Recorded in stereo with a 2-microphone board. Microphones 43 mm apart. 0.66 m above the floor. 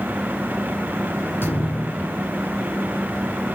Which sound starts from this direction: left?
A thud, at 1.4 s.